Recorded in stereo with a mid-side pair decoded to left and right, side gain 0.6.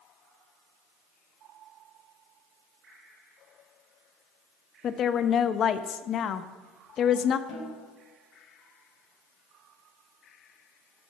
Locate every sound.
4.8 s a woman speaking: 45° left, 0.8 m
7.5 s a snare drum: 55° left, 5.5 m